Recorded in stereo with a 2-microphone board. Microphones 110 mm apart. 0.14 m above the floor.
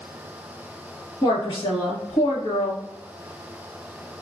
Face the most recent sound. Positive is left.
turn(degrees=45)  # may be behind; listen again after turning